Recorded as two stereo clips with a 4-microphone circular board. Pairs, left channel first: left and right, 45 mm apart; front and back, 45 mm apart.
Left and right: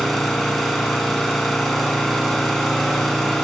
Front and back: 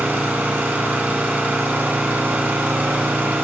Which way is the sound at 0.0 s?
175° left.